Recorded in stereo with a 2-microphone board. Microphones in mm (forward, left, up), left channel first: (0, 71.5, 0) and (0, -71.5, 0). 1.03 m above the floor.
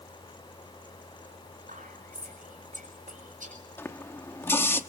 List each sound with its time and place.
1.7 s whispering: 70° right (ahead or behind), 5.5 m
3.8 s a running tap: 15° left (ahead or behind), 0.9 m